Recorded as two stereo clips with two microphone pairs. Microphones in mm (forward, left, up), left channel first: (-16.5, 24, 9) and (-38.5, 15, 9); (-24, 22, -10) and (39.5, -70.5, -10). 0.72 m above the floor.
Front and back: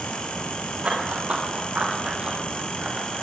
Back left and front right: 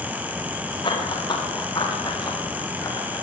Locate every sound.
0.8 s running footsteps: 175° left, 8 m; by 3.2 s straight behind, 8 m